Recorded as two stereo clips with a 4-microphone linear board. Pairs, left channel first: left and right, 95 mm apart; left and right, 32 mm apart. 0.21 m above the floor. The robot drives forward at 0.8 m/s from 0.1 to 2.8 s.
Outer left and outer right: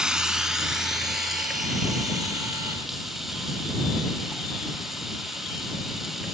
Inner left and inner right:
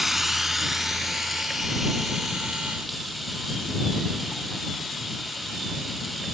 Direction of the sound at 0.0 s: 5° right (ahead or behind).